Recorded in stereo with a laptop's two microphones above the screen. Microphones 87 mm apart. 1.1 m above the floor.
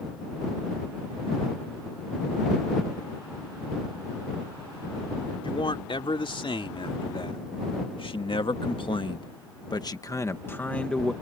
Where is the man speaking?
75° left (ahead or behind); by 11.1 s 5° left (ahead or behind).